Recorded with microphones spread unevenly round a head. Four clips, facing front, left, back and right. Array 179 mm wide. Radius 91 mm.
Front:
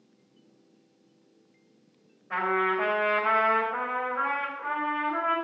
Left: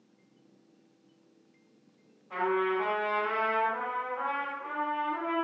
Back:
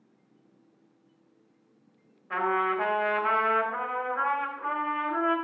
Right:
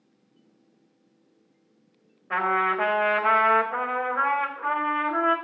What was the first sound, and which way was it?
A trumpet, 85° right.